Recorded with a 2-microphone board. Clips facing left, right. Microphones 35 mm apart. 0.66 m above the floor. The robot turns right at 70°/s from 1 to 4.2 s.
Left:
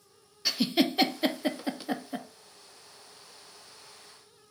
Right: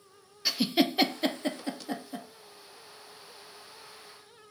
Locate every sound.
0.5 s a giggle: 5° right (ahead or behind), 0.5 m; by 2.3 s 25° left (ahead or behind), 0.5 m